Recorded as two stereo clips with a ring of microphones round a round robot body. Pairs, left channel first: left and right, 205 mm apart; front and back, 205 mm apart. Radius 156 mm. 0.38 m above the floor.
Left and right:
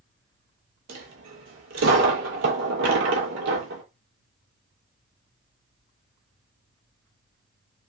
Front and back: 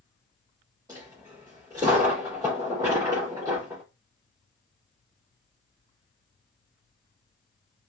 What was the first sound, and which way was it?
A dropped coin, 105° right.